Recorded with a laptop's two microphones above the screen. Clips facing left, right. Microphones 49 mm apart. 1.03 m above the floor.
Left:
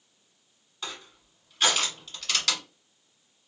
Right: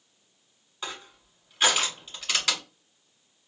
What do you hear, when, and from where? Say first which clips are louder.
0.8 s crushing: right 2 dB; 20° right (ahead or behind), 2 m